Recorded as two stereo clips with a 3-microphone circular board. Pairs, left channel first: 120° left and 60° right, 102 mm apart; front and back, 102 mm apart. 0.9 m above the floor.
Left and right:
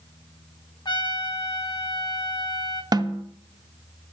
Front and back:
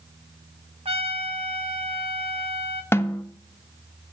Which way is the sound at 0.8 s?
165° left.